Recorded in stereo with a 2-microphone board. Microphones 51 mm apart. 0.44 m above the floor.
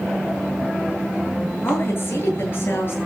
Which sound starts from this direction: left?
A woman speaking, at 1.6 s.